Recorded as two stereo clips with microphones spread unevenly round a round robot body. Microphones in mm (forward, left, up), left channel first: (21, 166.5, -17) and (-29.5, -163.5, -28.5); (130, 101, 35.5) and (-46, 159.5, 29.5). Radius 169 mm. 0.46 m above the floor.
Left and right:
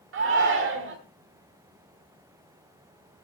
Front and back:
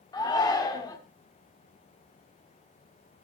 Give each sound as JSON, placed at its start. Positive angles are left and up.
{"t": 0.1, "sound": "a shout", "azimuth_deg": -80, "distance_m": 1.4}